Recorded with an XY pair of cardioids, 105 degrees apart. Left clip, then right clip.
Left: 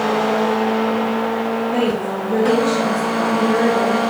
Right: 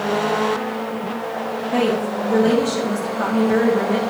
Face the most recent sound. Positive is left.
turn(degrees=-15)